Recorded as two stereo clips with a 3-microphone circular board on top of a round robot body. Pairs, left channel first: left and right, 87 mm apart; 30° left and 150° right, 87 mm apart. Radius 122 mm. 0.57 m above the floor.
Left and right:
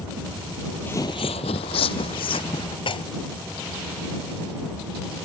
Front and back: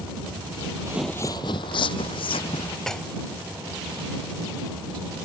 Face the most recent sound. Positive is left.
turn(degrees=115)